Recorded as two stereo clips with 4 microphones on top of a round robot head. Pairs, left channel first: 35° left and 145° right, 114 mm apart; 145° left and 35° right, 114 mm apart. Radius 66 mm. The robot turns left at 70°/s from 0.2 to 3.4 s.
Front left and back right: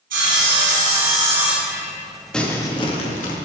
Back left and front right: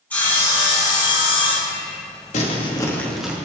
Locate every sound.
0.1 s sawing: 135° right, 5 m; by 2.0 s 95° left, 5 m
2.3 s crumpling: 120° left, 2 m; by 3.4 s 45° left, 2 m